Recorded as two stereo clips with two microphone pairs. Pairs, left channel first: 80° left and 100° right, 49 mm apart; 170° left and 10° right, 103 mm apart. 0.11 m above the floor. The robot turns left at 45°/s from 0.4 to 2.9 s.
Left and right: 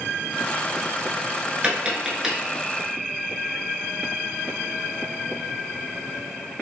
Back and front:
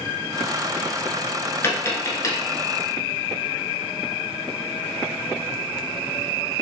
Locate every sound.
1.6 s tapping: 145° right, 0.8 m; by 2.4 s straight behind, 0.8 m